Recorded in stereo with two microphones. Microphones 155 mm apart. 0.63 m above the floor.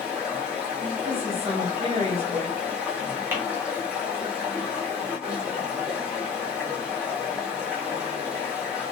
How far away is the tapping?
About 0.8 m.